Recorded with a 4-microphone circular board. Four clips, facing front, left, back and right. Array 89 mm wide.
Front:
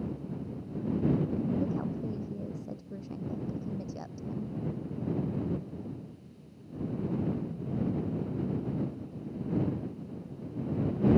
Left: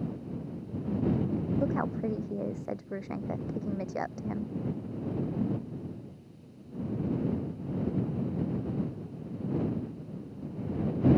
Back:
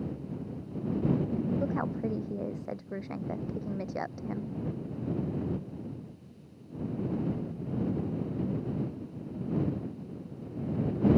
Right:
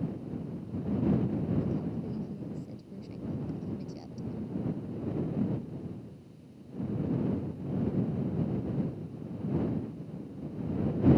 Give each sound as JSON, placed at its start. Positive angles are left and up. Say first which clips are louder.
{"t": 1.6, "sound": "a woman speaking", "louder": "left 4 dB, back 2 dB", "azimuth_deg": 120}